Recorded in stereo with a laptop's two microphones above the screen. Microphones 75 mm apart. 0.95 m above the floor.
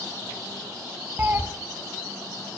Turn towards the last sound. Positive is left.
turn(degrees=-30)  # may be behind; listen again after turning